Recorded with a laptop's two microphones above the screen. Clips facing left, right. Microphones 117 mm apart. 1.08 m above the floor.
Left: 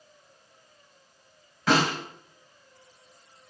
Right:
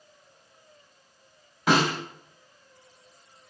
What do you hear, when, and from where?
1.7 s a snare drum: 20° right (ahead or behind), 1.8 m